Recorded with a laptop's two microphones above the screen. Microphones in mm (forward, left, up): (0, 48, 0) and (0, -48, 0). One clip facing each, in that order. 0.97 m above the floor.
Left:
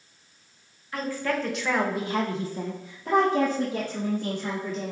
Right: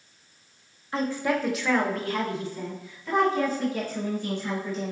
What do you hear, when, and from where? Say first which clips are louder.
0.9 s a woman speaking: right 2 dB; 25° right (ahead or behind), 1.2 m; by 4.9 s 75° left (ahead or behind), 3 m